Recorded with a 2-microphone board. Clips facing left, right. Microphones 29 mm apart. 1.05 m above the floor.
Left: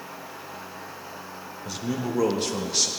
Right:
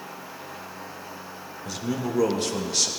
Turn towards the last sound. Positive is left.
turn(degrees=5)  # may be behind; listen again after turning